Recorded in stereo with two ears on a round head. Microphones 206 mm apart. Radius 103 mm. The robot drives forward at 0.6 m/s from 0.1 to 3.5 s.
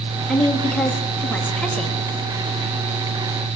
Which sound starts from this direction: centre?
A woman speaking, at 0.3 s.